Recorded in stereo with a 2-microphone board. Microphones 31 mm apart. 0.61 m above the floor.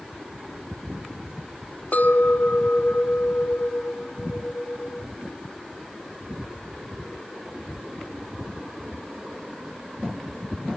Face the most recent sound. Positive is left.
turn(degrees=60)  # may be behind; listen again after turning